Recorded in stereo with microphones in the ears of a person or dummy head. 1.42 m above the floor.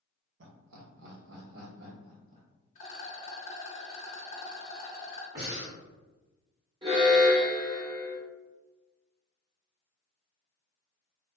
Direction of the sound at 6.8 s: 25° right (ahead or behind).